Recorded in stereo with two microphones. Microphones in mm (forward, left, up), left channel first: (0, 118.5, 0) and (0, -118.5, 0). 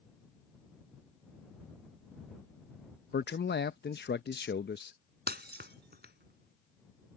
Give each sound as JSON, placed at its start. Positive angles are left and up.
{"t": 3.1, "sound": "a man speaking", "side_deg": 45}
{"t": 5.3, "sound": "breaking glass", "side_deg": -45}